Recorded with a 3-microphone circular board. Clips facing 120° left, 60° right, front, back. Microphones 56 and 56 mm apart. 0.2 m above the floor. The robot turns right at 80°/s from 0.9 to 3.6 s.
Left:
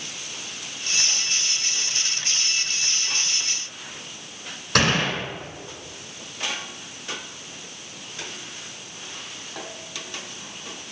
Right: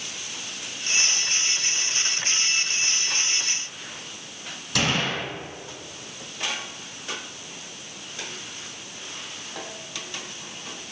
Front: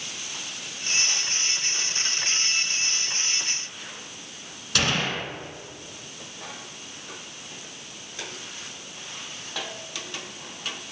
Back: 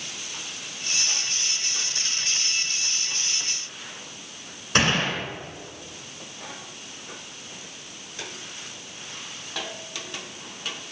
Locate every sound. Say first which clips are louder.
4.8 s a gunshot: left 3 dB, back 3 dB; 130° left, 2 m